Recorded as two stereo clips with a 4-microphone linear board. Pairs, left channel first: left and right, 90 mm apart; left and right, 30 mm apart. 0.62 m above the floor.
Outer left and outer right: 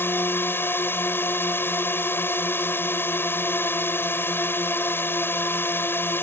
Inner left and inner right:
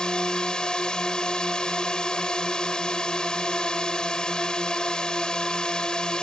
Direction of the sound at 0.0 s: 25° left (ahead or behind).